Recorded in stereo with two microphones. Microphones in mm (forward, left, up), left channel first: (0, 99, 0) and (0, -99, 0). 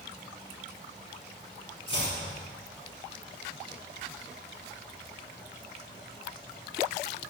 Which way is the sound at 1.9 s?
25° left (ahead or behind).